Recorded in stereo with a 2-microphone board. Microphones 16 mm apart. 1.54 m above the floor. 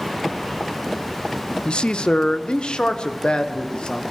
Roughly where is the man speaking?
Left.